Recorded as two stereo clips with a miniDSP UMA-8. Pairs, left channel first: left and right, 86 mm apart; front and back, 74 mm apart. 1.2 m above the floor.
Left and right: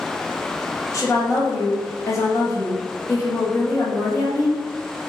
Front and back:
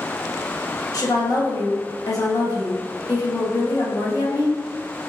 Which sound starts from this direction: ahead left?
A woman speaking, at 0.9 s.